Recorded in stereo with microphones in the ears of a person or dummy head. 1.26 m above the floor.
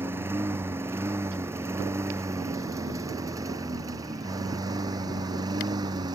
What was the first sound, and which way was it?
A lawn mower, 15° right (ahead or behind).